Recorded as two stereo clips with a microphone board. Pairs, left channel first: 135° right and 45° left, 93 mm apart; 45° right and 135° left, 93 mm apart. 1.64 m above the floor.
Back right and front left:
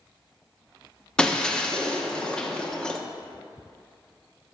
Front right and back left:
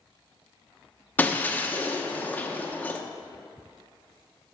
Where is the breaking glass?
70° right, 0.7 m.